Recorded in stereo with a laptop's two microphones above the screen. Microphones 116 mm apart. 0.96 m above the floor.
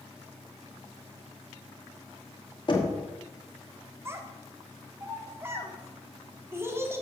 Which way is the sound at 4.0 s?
20° right (ahead or behind).